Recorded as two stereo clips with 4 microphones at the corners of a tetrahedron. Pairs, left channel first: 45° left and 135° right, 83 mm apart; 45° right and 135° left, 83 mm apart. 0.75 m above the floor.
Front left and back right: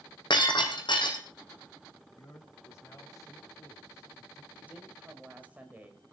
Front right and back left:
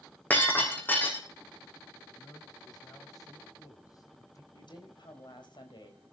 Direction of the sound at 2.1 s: 5° right.